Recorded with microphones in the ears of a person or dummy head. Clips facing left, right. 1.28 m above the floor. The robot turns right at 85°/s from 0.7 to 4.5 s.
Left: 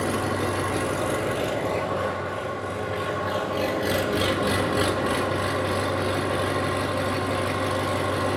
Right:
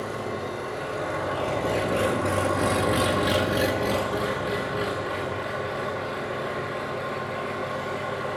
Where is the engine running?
100° left, 1.4 m; by 8.4 s 65° left, 1.4 m.